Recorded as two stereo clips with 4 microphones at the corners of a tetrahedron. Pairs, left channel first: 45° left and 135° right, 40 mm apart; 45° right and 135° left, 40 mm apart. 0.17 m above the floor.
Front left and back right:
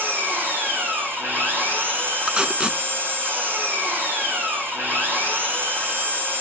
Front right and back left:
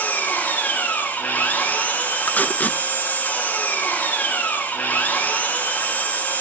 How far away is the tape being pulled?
About 0.9 m.